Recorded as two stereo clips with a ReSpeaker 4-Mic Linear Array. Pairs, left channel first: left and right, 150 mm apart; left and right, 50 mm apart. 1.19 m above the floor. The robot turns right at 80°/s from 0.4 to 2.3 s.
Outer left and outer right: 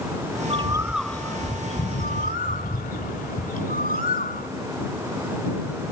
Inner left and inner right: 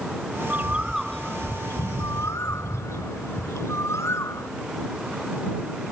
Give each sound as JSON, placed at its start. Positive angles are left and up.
{"t": 0.5, "sound": "a bird", "azimuth_deg": -40}